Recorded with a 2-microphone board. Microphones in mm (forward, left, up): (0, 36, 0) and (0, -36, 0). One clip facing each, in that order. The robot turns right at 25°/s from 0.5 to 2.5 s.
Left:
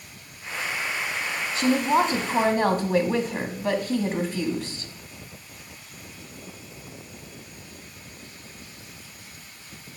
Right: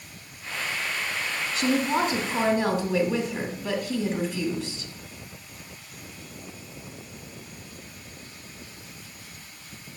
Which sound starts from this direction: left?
A woman speaking, at 1.6 s.